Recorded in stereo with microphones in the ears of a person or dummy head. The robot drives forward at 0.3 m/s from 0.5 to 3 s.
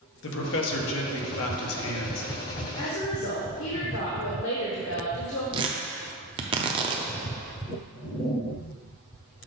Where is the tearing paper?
25° right (ahead or behind), 0.6 m.